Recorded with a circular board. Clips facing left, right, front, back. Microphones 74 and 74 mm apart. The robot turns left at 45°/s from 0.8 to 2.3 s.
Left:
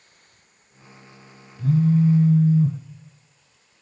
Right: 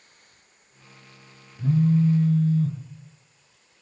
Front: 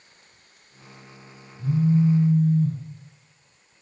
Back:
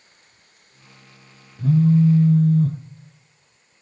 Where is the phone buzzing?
165° right, 0.6 m; by 2.8 s 160° left, 0.6 m.